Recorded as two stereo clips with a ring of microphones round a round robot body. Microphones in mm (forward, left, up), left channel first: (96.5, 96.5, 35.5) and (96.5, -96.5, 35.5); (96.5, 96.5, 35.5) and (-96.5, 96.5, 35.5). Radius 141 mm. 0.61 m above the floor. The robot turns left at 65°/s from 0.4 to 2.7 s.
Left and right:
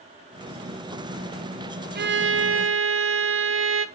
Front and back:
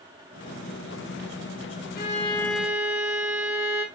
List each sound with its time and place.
1.9 s a violin: 50° right, 0.7 m; by 3.9 s 100° right, 0.7 m